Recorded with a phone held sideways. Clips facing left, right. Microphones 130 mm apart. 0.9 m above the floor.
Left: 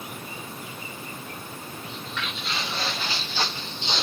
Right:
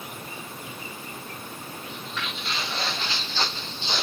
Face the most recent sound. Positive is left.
turn(degrees=25)  # may be behind; listen again after turning